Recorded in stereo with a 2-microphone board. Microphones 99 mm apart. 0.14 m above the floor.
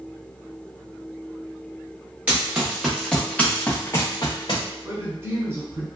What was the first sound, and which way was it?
Running footsteps, 15° right (ahead or behind).